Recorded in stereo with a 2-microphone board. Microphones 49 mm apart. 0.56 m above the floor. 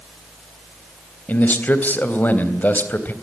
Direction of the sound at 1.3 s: 40° left (ahead or behind).